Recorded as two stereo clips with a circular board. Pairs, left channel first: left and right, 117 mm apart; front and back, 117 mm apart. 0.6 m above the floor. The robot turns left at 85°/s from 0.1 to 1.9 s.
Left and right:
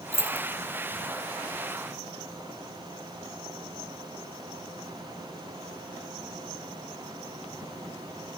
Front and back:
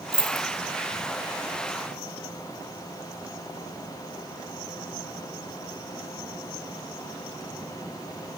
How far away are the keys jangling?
About 0.5 m.